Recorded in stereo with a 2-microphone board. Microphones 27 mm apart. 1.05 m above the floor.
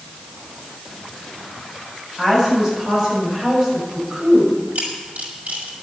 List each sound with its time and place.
2.2 s a woman speaking: 20° right (ahead or behind), 7.5 m; by 4.6 s 30° right (ahead or behind), 6 m
4.8 s a camera shutter: 75° right (ahead or behind), 5.5 m